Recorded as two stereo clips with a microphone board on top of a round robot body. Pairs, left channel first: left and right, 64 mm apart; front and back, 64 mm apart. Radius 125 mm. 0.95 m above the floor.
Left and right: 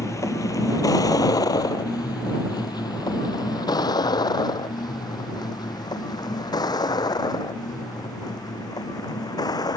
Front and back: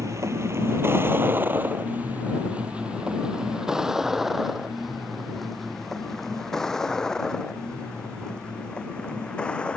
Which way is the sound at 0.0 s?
135° left.